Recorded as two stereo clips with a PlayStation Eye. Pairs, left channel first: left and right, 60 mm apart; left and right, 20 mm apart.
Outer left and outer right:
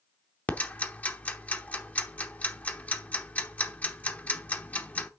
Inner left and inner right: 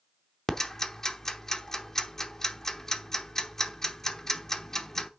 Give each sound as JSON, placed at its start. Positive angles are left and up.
{"t": 0.5, "sound": "ticking", "side_deg": 25, "distance_m": 0.8}